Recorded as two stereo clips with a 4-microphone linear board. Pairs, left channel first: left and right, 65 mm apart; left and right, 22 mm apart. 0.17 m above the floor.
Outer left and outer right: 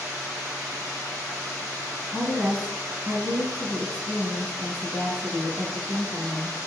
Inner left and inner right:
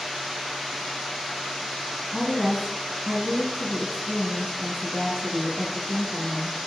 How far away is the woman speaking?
About 1.3 m.